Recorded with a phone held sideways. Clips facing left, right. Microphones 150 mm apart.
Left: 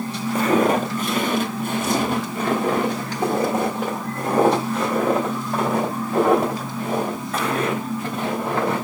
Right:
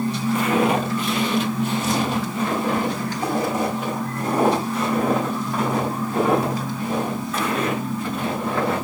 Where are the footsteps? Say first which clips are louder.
Left 3 dB; 40° left (ahead or behind), 1.0 m; by 8.8 s 50° left (ahead or behind), 5 m.